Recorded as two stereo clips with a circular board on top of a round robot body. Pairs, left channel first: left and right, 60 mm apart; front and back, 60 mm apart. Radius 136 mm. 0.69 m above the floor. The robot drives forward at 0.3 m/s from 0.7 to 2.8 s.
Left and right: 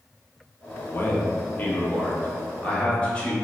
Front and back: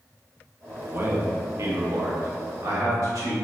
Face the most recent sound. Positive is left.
turn(degrees=160)